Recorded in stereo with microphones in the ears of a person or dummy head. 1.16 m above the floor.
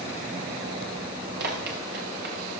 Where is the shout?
I don't hear a shout.